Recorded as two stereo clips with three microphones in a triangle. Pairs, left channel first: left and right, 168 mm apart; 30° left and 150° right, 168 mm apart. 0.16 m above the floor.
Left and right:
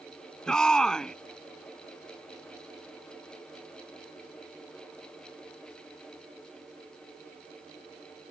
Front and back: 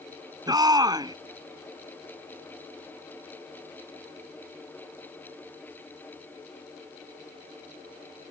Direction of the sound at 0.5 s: 170° left.